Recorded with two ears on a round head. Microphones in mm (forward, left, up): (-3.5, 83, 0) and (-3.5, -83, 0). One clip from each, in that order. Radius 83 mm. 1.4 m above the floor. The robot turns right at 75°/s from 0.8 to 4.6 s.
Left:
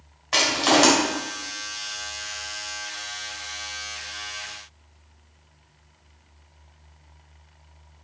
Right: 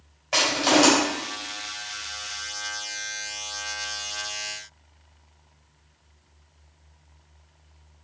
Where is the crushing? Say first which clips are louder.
Left 1 dB; centre (ahead or behind), 3.5 m; by 0.9 s 5° right (ahead or behind), 3.5 m.